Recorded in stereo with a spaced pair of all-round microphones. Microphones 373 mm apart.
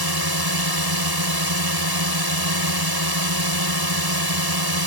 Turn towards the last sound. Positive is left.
turn(degrees=-85)